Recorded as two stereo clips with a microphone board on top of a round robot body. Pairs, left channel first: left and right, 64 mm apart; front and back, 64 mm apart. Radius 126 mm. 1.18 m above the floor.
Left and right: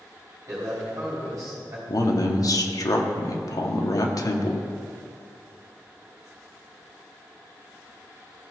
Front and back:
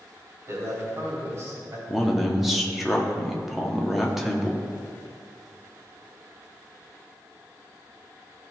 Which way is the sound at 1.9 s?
95° left.